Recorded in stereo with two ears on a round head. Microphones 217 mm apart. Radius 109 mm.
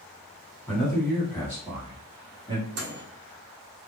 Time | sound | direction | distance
0.7 | a man speaking | centre (ahead or behind) | 2.0 m
2.8 | a microwave | 50° right (ahead or behind) | 1.2 m